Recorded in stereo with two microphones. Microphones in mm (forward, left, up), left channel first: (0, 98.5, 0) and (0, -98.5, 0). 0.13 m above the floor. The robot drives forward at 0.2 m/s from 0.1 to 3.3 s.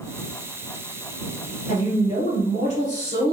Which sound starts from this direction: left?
A woman speaking, at 1.7 s.